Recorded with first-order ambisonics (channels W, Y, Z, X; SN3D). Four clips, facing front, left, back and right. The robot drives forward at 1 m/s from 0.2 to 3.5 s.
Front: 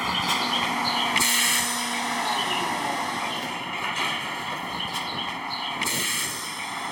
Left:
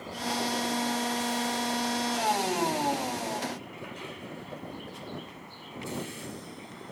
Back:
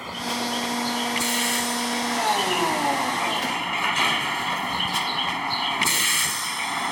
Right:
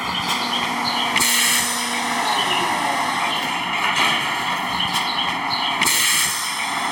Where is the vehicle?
65° right; by 6.9 s 105° right.